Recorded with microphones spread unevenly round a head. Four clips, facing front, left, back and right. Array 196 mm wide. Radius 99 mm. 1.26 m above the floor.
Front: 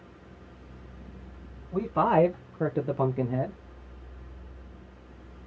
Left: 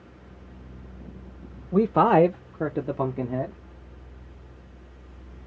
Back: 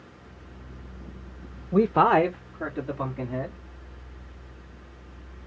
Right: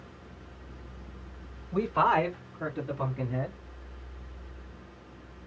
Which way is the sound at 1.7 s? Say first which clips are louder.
Left 6 dB, back 4 dB; 150° left.